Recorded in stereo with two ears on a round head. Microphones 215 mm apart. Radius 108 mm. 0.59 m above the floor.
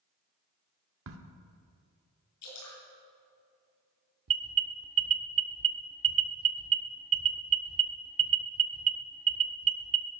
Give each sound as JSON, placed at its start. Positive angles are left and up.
{"t": 1.1, "sound": "a crack", "side_deg": -60, "distance_m": 1.2}
{"t": 2.4, "sound": "dripping", "side_deg": 70, "distance_m": 6.5}
{"t": 4.3, "sound": "an alarm", "side_deg": -65, "distance_m": 0.9}